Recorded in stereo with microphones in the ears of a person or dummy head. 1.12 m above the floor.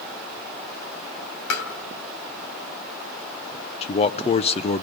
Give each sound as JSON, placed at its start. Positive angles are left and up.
{"t": 1.5, "sound": "tapping", "side_deg": 75, "distance_m": 2.5}
{"t": 3.8, "sound": "a man speaking", "side_deg": 35, "distance_m": 0.7}